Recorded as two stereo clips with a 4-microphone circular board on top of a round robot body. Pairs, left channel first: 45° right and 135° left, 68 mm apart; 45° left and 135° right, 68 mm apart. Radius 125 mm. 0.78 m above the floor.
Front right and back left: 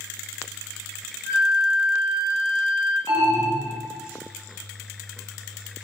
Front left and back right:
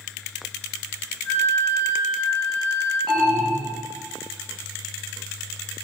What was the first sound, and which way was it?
A flute, 5° right.